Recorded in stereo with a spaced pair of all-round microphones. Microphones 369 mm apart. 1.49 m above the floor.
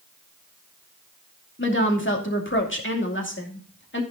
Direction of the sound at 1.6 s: 30° left (ahead or behind).